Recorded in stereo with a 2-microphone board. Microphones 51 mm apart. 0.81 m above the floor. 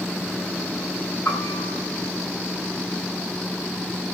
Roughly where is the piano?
Left.